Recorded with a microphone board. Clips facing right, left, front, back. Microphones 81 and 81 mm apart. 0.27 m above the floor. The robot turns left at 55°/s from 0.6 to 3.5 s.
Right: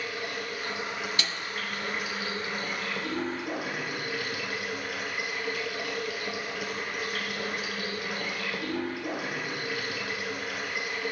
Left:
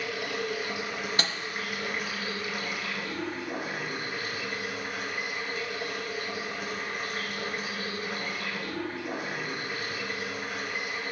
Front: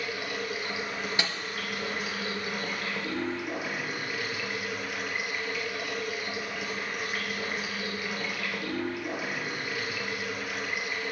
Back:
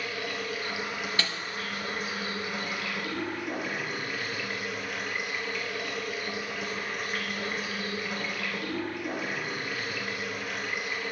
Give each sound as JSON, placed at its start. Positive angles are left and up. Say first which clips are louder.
{"t": 0.0, "sound": "running water", "louder": "left 2 dB, even", "azimuth_deg": 75, "distance_m": 3.0}
{"t": 1.2, "sound": "a snare drum", "louder": "left 3 dB, front 2 dB", "azimuth_deg": 65, "distance_m": 0.8}